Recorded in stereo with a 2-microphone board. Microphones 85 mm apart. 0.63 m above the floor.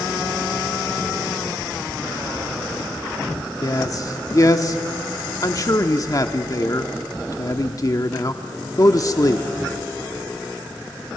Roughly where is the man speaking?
Left.